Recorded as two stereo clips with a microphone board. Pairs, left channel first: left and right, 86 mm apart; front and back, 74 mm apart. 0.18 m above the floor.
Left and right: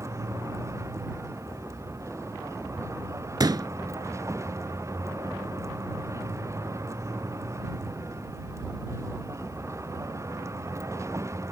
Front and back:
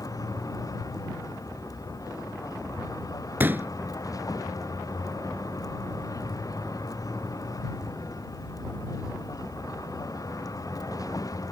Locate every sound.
0.0 s a vehicle: 35° right
3.4 s a pop: 120° right